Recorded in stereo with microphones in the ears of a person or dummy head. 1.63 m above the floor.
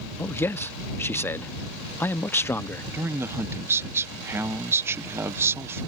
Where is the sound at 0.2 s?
15° left (ahead or behind).